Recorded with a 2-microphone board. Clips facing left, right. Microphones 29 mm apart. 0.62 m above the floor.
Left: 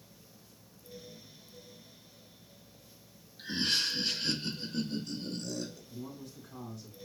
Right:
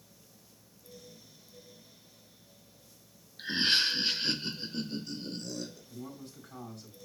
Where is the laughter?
45° right (ahead or behind), 0.8 m; by 5.8 s 5° right (ahead or behind), 2.5 m.